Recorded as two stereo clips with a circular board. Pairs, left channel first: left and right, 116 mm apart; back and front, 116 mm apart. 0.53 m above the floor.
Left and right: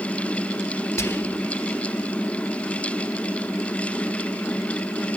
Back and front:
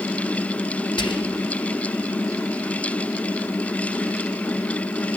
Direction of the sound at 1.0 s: 150° left.